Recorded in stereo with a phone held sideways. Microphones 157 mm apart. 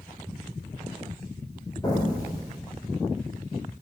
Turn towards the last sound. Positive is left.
turn(degrees=25)  # may be behind; listen again after turning